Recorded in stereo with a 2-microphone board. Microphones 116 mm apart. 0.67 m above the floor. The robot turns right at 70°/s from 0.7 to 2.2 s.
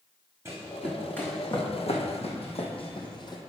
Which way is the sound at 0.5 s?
25° right (ahead or behind).